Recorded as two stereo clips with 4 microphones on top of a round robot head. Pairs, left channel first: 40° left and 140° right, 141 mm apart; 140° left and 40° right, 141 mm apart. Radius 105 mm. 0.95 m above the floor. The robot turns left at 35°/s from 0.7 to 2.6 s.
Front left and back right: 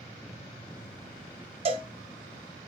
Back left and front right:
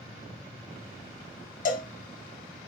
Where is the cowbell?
170° left, 0.8 m; by 1.9 s 160° left, 0.8 m.